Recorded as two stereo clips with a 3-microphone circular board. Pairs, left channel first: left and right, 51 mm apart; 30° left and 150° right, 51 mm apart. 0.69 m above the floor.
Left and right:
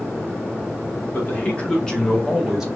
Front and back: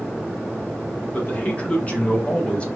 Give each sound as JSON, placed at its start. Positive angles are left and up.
{"t": 1.1, "sound": "a man speaking", "azimuth_deg": 65, "distance_m": 1.1}